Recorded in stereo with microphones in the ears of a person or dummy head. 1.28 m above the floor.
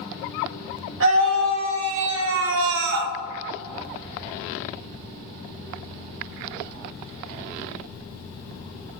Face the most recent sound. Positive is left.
turn(degrees=-55)  # may be behind; listen again after turning